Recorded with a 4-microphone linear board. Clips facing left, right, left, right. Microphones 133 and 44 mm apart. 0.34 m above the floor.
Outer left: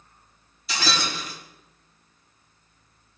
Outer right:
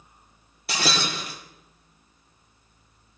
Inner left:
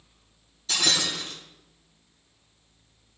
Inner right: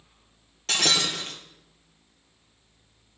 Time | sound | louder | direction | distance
0.7 | breaking glass | outer right 1 dB, inner right 1 dB | 65° right (ahead or behind) | 3.5 m